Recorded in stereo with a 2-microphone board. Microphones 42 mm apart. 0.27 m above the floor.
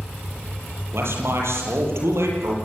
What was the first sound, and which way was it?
A man speaking, 70° right (ahead or behind).